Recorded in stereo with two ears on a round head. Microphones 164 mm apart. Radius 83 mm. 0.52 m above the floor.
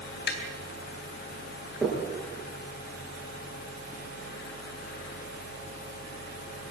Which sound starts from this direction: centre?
Knocking, at 1.8 s.